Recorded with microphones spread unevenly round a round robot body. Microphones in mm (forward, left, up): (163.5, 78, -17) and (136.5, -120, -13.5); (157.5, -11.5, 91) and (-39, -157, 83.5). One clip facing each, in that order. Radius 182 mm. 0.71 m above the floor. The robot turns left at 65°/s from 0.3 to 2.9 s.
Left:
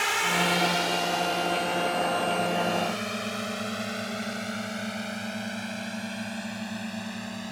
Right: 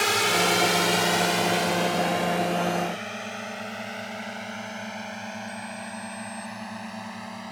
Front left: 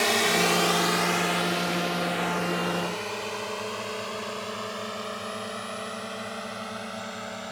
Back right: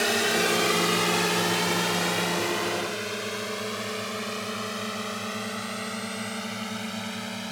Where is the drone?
65° right; by 7.5 s 155° left.